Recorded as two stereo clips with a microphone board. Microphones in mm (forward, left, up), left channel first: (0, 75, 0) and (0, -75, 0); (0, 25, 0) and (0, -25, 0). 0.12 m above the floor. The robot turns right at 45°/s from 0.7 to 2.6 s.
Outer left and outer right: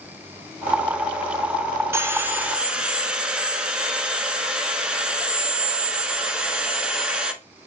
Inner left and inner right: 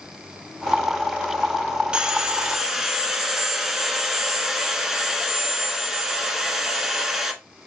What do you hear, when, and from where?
1.9 s sawing: 15° right (ahead or behind), 0.8 m; by 7.3 s 5° right (ahead or behind), 0.8 m